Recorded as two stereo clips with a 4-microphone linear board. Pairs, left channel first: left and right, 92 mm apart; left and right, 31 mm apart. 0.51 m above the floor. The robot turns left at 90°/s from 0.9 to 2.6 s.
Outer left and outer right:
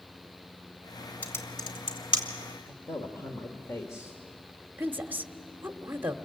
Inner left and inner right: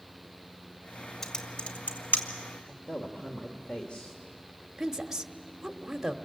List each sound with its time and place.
1.2 s typing on a keyboard: 15° left (ahead or behind), 2 m; by 2.2 s 60° left (ahead or behind), 2 m
2.6 s a man speaking: 30° left (ahead or behind), 1.6 m
4.8 s a woman speaking: 20° right (ahead or behind), 1.2 m